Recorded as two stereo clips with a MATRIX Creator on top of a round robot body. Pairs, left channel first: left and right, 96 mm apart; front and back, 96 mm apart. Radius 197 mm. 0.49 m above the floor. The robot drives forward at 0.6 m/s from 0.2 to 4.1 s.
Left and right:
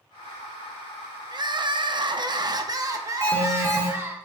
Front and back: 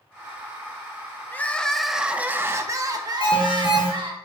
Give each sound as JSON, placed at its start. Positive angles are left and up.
{"t": 1.3, "sound": "crying", "azimuth_deg": -65, "distance_m": 1.0}
{"t": 3.2, "sound": "an alarm", "azimuth_deg": 25, "distance_m": 4.5}